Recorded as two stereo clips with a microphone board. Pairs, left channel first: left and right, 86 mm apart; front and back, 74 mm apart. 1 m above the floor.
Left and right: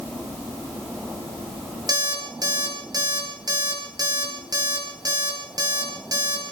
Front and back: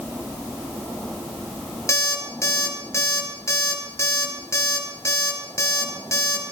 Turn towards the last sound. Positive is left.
turn(degrees=-50)